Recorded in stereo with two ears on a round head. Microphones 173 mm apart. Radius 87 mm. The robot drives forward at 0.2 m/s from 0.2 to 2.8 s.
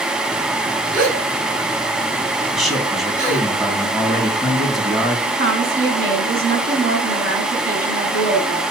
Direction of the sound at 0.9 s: 50° right (ahead or behind).